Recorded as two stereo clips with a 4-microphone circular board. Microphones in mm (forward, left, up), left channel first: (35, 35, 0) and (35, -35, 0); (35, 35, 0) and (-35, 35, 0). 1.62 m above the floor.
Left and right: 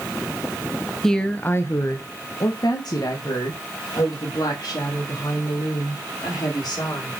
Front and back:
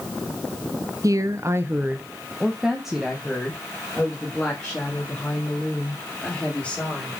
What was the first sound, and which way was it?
A woman speaking, 175° left.